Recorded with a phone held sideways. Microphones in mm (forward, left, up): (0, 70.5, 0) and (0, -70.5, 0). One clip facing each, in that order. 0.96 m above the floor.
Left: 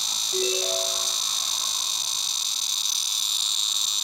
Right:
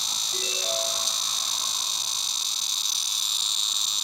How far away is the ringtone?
About 7 m.